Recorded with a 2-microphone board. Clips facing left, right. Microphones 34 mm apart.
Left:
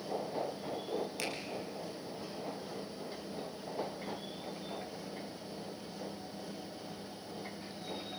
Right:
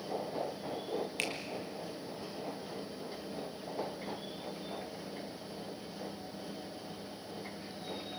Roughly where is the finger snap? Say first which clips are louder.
Right 2 dB; right.